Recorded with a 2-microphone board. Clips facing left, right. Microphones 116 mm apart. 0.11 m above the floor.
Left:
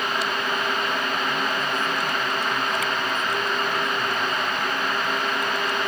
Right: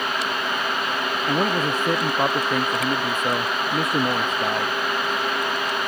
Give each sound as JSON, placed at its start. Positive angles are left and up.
{"t": 1.3, "sound": "a man speaking", "side_deg": -75}